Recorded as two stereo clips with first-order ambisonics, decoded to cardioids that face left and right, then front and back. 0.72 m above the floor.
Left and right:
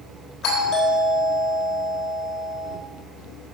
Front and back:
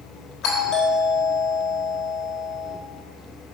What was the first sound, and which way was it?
A doorbell, 50° left.